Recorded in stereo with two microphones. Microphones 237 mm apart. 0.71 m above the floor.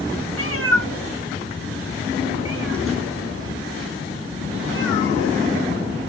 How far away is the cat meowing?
About 0.8 m.